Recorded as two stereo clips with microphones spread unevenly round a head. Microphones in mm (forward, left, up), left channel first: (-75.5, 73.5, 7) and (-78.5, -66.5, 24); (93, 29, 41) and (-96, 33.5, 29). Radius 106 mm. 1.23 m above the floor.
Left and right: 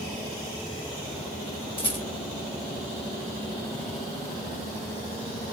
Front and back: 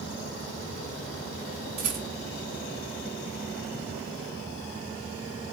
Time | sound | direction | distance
1.8 | a rattle | 140° left | 3 m